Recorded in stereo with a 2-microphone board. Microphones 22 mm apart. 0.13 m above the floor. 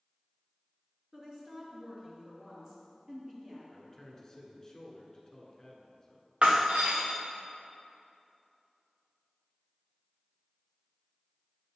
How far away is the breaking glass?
About 1.5 m.